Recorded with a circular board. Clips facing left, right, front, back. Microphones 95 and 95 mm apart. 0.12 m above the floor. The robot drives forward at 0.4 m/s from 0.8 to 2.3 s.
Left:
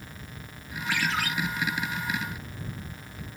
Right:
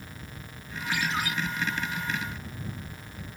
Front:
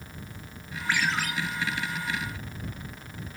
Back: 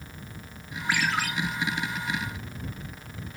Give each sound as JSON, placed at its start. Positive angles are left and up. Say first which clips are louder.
{"t": 0.9, "sound": "a ringtone", "louder": "left 1 dB, back 1 dB", "azimuth_deg": 100, "distance_m": 6.5}